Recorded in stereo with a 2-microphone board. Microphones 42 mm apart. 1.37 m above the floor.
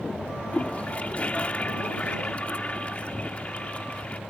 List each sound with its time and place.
0.5 s a toilet flushing: 30° left (ahead or behind)